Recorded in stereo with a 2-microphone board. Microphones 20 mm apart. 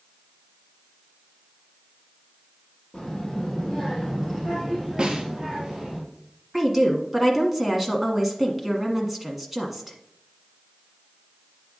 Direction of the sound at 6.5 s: 5° right (ahead or behind).